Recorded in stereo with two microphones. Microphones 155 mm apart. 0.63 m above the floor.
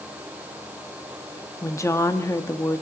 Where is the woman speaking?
20° left (ahead or behind), 0.9 m.